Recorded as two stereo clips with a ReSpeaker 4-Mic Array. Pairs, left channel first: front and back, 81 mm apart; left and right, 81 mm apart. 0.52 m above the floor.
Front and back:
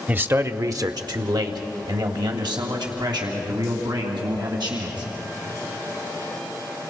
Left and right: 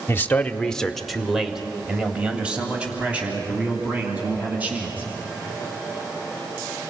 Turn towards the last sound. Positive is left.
turn(degrees=-160)